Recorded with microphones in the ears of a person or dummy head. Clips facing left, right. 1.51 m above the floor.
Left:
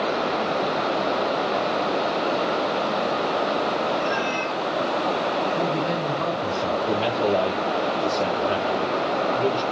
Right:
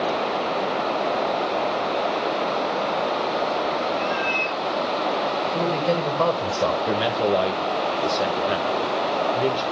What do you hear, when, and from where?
4.0 s a cat meowing: 5° right (ahead or behind), 4 m
5.5 s a man speaking: 85° right, 5 m
6.9 s a man speaking: 20° right (ahead or behind), 1.3 m